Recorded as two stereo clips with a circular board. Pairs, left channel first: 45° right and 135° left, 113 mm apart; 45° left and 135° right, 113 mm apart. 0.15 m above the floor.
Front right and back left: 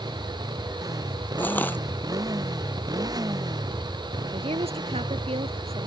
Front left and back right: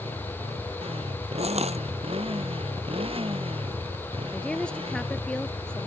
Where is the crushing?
120° right.